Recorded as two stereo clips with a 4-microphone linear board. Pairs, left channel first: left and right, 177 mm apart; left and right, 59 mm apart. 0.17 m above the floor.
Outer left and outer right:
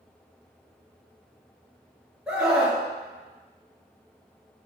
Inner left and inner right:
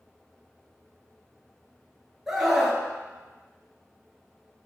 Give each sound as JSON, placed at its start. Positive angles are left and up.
{"t": 2.3, "sound": "a scream", "side_deg": -5, "distance_m": 2.0}